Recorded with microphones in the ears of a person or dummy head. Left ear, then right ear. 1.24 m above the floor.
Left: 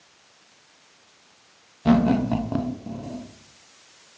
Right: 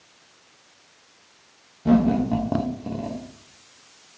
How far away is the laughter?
About 1.3 m.